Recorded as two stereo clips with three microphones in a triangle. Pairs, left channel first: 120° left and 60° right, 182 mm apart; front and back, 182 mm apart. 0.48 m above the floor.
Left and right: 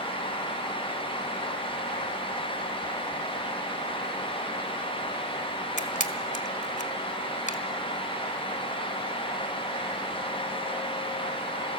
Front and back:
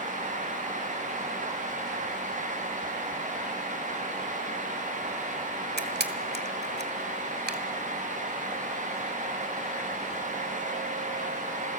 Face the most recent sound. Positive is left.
turn(degrees=165)